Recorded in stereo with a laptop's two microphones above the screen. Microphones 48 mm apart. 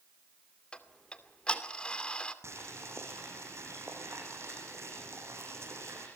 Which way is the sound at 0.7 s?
20° left (ahead or behind).